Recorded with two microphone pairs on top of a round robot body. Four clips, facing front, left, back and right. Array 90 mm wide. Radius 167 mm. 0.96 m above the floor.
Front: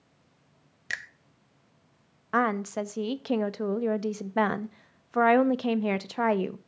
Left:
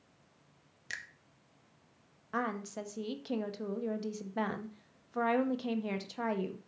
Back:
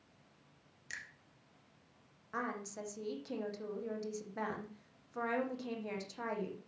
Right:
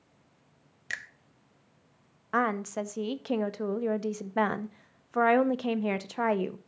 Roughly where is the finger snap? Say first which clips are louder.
Right 6 dB, front 12 dB; ahead.